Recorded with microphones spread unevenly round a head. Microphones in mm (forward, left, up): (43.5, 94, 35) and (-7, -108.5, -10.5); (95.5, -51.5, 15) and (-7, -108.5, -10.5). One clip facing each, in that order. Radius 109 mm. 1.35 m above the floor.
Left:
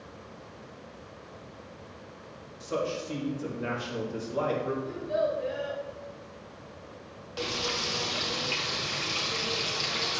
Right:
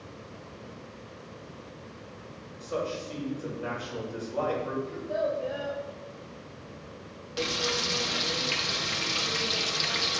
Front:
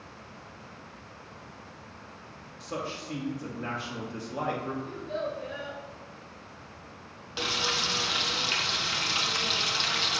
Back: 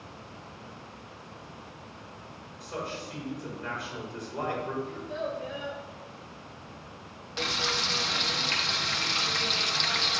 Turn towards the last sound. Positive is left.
turn(degrees=-35)